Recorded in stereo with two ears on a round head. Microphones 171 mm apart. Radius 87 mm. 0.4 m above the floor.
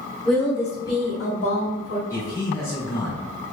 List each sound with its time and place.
0.2 s a woman speaking: centre (ahead or behind), 1.1 m; by 2.0 s 45° left (ahead or behind), 1.4 m
2.1 s a man speaking: 15° left (ahead or behind), 1.1 m